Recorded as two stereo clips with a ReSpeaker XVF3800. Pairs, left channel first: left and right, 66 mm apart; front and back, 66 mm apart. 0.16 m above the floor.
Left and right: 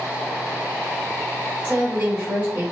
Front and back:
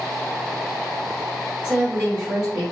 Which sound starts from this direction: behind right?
A woman speaking, at 1.6 s.